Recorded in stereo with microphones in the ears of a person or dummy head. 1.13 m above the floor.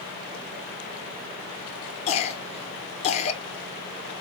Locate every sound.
2.1 s a cough: 35° left (ahead or behind), 0.9 m